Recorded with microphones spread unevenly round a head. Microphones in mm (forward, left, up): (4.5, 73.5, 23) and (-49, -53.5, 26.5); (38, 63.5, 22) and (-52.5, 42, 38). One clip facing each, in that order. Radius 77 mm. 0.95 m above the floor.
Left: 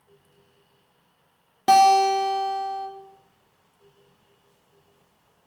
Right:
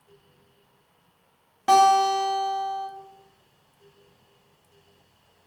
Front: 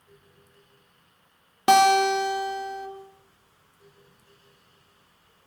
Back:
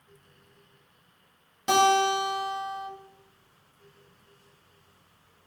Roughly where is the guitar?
Ahead.